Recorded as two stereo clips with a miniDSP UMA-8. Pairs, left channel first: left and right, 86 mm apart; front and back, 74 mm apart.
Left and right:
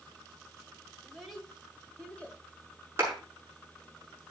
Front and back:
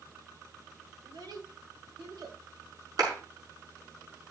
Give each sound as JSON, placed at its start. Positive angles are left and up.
{"t": 1.0, "sound": "a child speaking", "azimuth_deg": 180, "distance_m": 2.5}
{"t": 3.0, "sound": "a clap", "azimuth_deg": -150, "distance_m": 6.5}